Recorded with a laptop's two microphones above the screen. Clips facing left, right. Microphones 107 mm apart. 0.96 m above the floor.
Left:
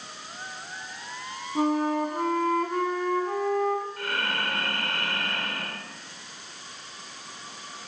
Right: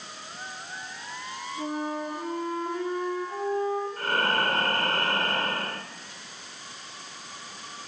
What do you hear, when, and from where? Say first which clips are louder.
1.6 s a flute: left 8 dB; 70° left (ahead or behind), 6 m
4.0 s breathing: right 4 dB; 40° right (ahead or behind), 1.8 m